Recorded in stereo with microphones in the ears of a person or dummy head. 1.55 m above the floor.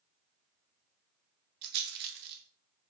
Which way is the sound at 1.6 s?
55° right (ahead or behind).